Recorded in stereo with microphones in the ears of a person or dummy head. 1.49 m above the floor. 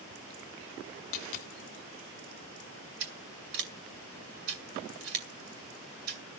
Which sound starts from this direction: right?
Scissors, at 3.0 s.